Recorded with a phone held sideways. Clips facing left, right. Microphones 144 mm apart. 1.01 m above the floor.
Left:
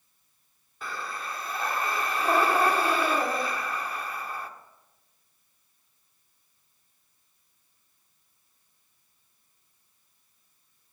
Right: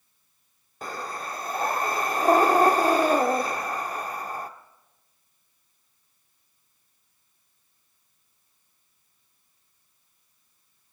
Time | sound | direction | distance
0.8 | breathing | 45° right (ahead or behind) | 0.9 m